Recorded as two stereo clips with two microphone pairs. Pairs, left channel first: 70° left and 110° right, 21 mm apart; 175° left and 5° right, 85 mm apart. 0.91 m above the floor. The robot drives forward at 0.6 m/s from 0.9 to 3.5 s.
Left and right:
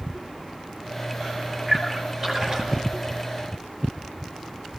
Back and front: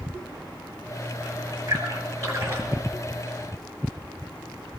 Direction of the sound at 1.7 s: 50° right.